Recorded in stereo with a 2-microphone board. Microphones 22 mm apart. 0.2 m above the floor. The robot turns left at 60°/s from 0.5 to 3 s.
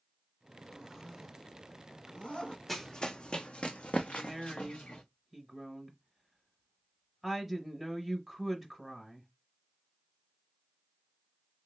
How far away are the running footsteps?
About 0.7 m.